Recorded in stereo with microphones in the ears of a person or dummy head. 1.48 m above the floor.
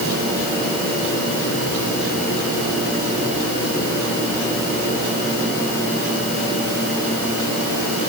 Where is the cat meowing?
I don't hear a cat meowing.